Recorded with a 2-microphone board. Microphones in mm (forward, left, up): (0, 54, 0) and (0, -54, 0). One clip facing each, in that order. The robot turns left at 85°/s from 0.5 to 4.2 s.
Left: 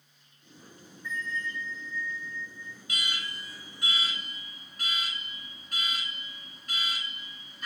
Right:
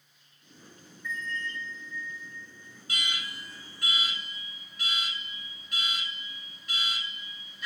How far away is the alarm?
About 3 m.